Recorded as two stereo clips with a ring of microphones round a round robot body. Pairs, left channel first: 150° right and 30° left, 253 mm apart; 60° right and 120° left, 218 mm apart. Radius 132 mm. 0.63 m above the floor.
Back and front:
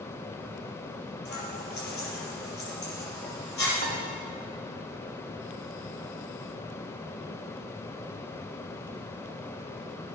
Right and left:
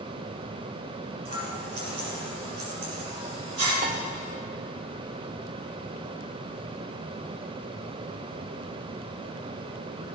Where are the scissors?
155° left, 4.5 m.